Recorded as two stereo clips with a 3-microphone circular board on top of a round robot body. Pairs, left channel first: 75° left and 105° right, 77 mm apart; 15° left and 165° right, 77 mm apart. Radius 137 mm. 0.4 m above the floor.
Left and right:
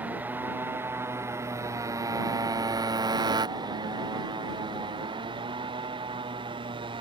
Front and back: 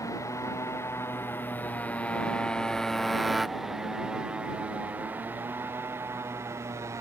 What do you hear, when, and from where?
0.0 s a motorcycle: 35° right; by 7.0 s 110° right